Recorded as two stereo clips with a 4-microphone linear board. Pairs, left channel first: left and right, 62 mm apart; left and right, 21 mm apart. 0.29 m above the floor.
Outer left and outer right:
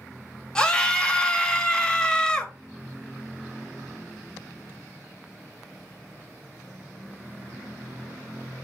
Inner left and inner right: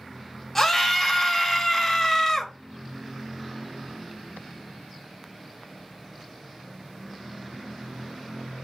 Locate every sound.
0.6 s a scream: 15° left (ahead or behind), 0.9 m